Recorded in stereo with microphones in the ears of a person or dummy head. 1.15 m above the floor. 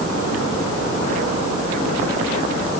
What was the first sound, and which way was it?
Only background noise.